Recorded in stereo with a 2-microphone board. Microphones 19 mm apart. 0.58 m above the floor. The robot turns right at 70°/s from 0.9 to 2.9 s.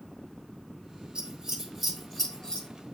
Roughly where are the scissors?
Right.